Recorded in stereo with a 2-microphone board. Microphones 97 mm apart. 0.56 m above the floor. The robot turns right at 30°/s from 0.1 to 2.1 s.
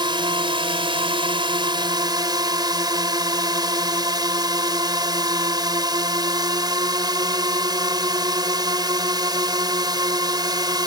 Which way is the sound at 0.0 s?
115° right.